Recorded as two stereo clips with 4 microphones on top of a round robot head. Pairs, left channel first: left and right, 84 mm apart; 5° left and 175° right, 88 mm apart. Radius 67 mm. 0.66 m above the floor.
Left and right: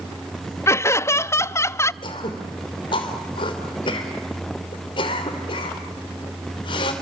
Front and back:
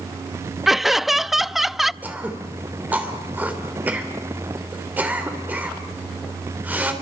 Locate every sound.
0.7 s laughter: 105° left, 0.5 m
2.0 s throat clearing: 120° left, 3 m